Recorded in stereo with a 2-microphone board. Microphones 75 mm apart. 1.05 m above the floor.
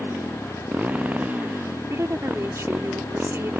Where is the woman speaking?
35° right (ahead or behind).